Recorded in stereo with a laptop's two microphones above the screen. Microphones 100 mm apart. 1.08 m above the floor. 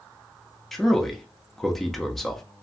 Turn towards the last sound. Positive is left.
turn(degrees=5)  # may be behind; listen again after turning